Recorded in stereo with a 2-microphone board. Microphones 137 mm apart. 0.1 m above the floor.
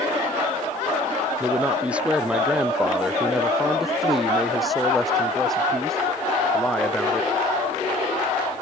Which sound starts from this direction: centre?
A man speaking, at 1.4 s.